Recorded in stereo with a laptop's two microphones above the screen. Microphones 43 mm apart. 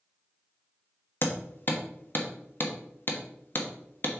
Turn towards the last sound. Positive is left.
turn(degrees=50)  # may be behind; listen again after turning